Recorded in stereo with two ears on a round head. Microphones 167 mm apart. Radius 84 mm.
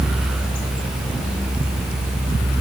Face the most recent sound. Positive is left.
No sound to turn to.